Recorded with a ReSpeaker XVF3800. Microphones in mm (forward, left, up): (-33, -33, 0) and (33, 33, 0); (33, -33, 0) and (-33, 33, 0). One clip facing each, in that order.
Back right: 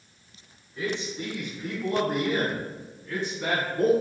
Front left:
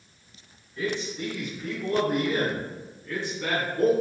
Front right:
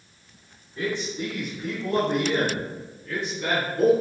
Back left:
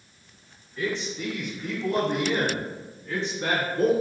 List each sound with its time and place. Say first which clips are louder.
0.8 s a man speaking: front left 1 dB, front right 1 dB; 85° right, 1.2 m; by 3.9 s 155° left, 1.5 m